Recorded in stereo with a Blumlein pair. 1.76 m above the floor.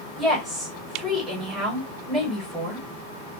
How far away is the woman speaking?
About 1.4 m.